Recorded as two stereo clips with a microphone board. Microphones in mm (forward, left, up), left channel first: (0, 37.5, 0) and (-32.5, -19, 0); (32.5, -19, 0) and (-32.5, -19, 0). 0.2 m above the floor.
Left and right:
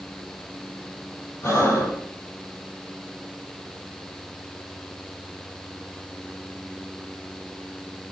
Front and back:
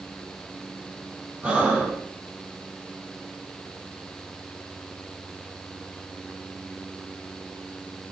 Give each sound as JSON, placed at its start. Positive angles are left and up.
{"t": 1.4, "sound": "breathing", "azimuth_deg": 105, "distance_m": 6.5}